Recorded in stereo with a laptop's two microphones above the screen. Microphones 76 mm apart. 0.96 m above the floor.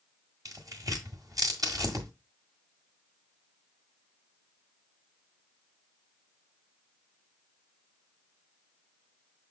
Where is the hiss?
I don't hear a hiss.